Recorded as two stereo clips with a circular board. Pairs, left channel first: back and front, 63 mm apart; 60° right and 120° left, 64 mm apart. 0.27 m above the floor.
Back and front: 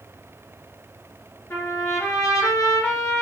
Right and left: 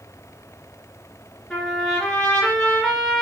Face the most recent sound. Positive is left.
turn(degrees=-140)